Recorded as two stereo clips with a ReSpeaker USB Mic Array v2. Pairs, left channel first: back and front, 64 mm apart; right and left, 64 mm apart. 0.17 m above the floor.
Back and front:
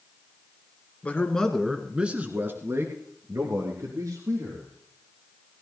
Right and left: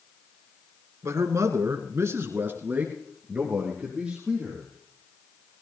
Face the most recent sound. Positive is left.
turn(degrees=10)